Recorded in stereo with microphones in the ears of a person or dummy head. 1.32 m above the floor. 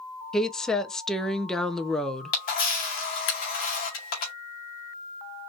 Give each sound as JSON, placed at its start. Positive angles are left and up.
{"t": 0.3, "sound": "a woman speaking", "side_deg": 5, "distance_m": 0.6}
{"t": 2.3, "sound": "a camera shutter", "side_deg": 40, "distance_m": 0.8}